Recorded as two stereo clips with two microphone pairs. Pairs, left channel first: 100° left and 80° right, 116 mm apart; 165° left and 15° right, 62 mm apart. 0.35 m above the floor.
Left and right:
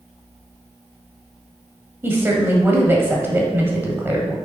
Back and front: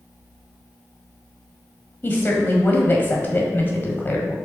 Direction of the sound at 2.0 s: 150° right.